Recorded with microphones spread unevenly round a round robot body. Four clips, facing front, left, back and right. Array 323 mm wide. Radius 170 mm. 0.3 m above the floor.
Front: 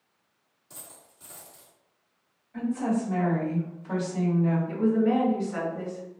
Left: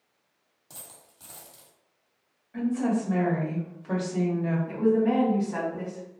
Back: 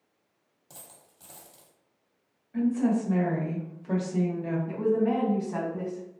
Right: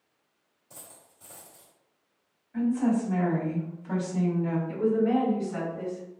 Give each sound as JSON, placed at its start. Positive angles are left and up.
{"t": 0.7, "sound": "a dropped coin", "azimuth_deg": 115, "distance_m": 1.6}
{"t": 2.5, "sound": "a woman speaking", "azimuth_deg": 165, "distance_m": 1.1}
{"t": 4.7, "sound": "a woman speaking", "azimuth_deg": 120, "distance_m": 2.0}